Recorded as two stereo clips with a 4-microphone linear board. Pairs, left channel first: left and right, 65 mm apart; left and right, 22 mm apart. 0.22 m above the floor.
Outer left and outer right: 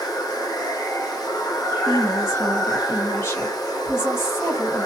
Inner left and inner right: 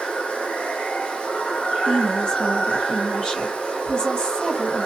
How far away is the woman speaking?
About 2.5 m.